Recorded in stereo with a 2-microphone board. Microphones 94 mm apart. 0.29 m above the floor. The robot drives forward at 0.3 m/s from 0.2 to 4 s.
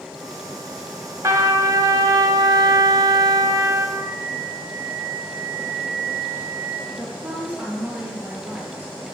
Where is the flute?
30° right (ahead or behind), 1.3 m.